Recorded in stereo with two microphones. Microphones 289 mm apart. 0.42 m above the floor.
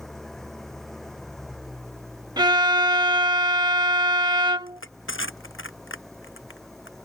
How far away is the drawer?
I don't hear a drawer.